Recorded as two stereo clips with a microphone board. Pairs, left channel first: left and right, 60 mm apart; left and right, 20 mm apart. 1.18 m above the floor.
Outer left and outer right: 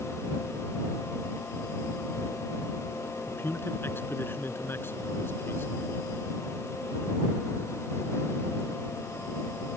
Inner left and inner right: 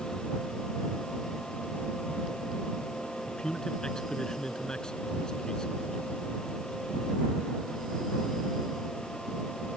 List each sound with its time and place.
3.3 s a man speaking: 40° left (ahead or behind)